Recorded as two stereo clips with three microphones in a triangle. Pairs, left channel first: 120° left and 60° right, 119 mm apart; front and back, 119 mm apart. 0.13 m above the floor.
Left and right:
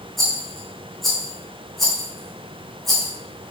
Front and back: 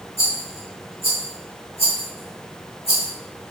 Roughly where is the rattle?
Ahead left.